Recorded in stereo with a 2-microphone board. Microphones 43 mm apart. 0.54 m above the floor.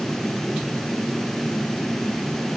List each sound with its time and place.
Only background noise.